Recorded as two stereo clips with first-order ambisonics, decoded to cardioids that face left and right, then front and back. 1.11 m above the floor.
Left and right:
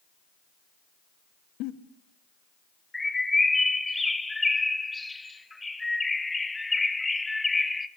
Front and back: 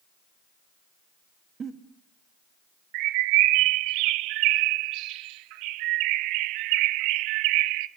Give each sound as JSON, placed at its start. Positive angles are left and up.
{"t": 1.6, "sound": "a giggle", "azimuth_deg": 115, "distance_m": 2.0}
{"t": 2.9, "sound": "a bird", "azimuth_deg": 170, "distance_m": 0.9}